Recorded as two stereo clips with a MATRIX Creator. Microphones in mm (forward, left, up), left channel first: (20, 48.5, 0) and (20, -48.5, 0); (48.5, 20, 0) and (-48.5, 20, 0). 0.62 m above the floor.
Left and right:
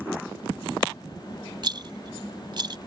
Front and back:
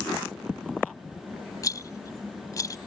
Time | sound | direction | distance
1.6 | a rattle | 50° right | ?